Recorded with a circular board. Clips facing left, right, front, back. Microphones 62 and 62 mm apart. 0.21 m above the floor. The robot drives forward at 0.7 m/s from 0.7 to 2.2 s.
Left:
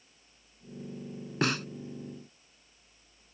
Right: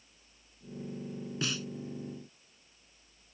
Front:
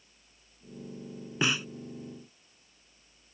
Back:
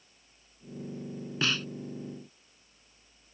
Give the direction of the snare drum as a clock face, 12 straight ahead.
10 o'clock.